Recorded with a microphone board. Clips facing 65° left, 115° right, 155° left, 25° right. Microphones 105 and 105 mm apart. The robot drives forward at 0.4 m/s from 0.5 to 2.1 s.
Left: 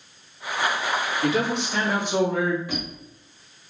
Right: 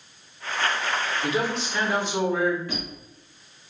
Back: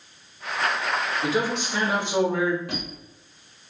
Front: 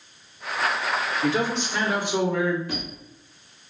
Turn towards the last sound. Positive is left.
turn(degrees=145)